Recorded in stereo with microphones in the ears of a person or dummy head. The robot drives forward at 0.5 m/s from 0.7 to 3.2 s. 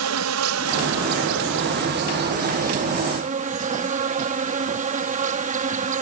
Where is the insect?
85° right; by 6.0 s 35° right (ahead or behind).